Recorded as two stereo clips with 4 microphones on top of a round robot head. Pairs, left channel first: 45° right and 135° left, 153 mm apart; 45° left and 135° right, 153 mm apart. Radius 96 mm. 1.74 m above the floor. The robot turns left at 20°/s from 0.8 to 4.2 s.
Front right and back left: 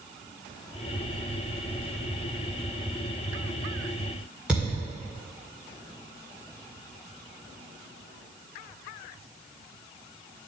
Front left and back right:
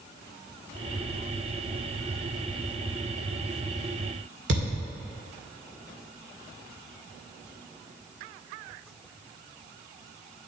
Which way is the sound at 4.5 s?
145° right.